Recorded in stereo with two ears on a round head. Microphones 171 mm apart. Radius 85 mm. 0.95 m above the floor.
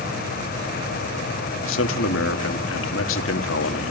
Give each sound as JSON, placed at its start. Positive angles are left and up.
{"t": 1.6, "sound": "a man speaking", "side_deg": 75, "distance_m": 1.4}